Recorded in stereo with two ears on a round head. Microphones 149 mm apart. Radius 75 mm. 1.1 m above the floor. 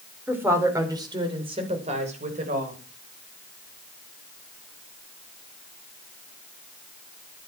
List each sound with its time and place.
0.3 s a woman speaking: 10° right (ahead or behind), 4 m; by 2.8 s 50° right (ahead or behind), 5.5 m